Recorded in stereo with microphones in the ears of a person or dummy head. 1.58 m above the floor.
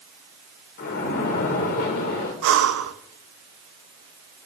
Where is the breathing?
65° right (ahead or behind), 0.9 m.